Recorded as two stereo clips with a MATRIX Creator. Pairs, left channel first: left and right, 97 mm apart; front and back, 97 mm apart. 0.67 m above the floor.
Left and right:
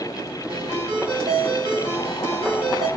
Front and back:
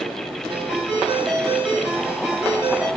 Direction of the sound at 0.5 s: 100° right.